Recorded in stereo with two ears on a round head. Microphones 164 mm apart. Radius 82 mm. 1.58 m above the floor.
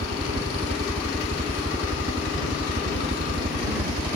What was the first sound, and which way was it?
A helicopter, 45° right (ahead or behind).